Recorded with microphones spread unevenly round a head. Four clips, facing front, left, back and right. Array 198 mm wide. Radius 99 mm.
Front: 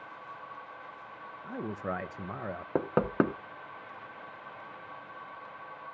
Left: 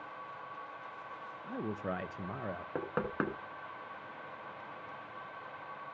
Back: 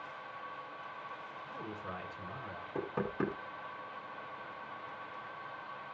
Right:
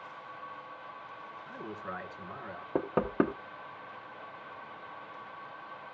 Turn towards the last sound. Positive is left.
turn(degrees=-30)